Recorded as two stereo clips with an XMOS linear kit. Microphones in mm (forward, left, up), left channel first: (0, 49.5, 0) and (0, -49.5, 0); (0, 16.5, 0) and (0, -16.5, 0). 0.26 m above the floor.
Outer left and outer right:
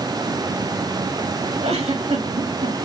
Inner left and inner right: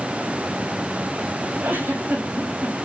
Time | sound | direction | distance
1.6 | a giggle | 85° right | 9 m